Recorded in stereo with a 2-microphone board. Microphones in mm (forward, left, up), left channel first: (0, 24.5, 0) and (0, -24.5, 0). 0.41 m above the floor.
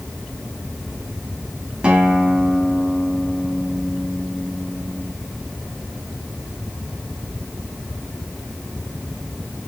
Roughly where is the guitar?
Right.